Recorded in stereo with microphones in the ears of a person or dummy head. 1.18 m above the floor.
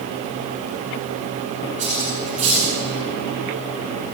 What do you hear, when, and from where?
1.8 s cutlery clinking: 40° right (ahead or behind), 9 m